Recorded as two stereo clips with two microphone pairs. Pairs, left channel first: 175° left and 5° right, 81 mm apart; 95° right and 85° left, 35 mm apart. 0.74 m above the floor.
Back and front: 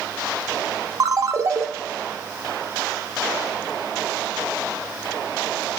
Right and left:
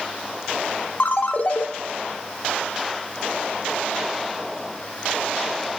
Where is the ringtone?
55° right, 0.7 m.